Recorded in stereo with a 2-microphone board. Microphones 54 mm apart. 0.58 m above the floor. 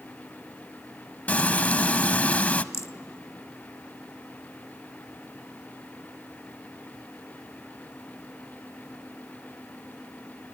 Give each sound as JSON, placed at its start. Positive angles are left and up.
{"t": 1.3, "sound": "frying", "side_deg": 25, "distance_m": 0.6}
{"t": 2.7, "sound": "a rattle", "side_deg": 60, "distance_m": 0.6}